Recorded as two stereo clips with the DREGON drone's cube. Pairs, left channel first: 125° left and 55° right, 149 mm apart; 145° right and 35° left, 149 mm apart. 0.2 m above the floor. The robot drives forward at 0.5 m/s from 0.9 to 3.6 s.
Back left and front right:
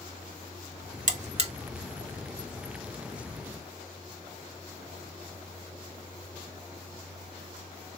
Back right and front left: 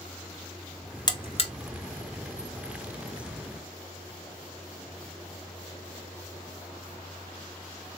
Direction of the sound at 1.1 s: 85° right.